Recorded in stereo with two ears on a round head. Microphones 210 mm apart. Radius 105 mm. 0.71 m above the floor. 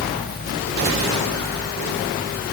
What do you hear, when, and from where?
Only background noise.